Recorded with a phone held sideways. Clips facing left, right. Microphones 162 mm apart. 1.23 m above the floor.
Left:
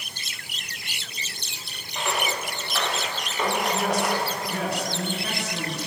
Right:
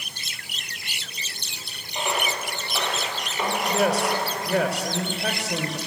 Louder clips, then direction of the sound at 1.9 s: Right 1 dB; 15° right (ahead or behind).